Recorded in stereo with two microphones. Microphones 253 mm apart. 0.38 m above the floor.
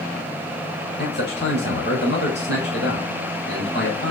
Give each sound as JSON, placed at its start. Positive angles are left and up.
{"t": 1.0, "sound": "a man speaking", "side_deg": 45, "distance_m": 2.5}